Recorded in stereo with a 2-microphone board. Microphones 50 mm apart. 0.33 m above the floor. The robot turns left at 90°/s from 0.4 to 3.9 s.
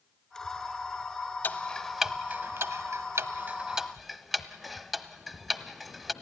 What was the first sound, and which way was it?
Ticking, 45° left (ahead or behind).